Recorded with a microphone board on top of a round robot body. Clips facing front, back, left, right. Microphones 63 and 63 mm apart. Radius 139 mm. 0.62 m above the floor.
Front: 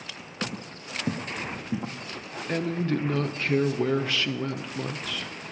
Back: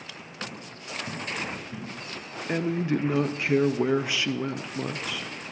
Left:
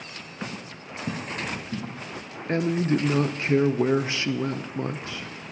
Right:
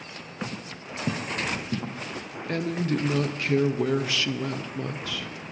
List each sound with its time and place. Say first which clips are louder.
0.4 s footsteps: front 4 dB, right 1 dB; 15° right, 0.8 m; by 2.0 s 35° right, 1.5 m
2.5 s a woman speaking: back 1 dB, left 4 dB; 115° left, 0.6 m